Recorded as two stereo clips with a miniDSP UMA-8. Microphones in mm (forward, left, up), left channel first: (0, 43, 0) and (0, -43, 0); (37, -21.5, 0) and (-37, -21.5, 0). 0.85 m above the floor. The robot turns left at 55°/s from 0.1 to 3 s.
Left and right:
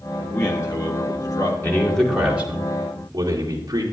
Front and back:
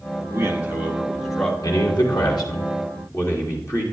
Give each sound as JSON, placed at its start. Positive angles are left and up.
{"t": 0.2, "sound": "a man speaking", "azimuth_deg": 150, "distance_m": 1.5}
{"t": 1.6, "sound": "a man speaking", "azimuth_deg": 25, "distance_m": 2.0}